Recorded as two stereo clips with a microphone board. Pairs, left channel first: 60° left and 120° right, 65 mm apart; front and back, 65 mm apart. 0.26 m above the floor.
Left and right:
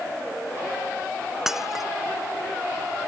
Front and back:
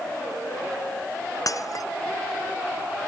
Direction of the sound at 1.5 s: 35° right.